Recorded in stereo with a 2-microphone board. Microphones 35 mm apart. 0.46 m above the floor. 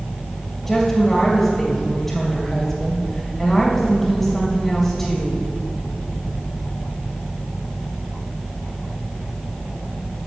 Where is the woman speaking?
Centre (ahead or behind), 2.5 m.